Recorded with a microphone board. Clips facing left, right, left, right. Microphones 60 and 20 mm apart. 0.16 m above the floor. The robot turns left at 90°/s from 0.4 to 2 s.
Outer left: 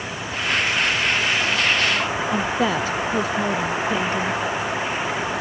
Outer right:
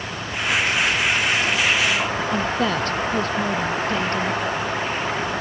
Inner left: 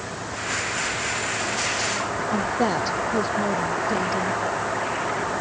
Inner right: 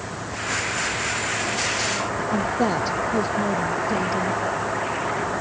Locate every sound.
2.3 s a woman speaking: 5° left (ahead or behind)